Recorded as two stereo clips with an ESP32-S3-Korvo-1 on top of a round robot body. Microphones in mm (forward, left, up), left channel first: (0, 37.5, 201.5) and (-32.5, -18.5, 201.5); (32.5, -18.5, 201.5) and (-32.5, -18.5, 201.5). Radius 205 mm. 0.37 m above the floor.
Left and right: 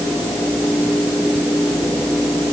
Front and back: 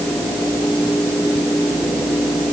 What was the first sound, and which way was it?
Only background noise.